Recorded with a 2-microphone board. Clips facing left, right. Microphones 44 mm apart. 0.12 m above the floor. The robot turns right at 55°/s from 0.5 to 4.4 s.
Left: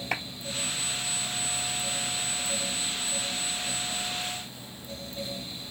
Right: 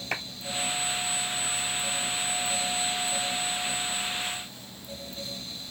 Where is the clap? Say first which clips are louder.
Left 1 dB; 5° left (ahead or behind), 2.5 m.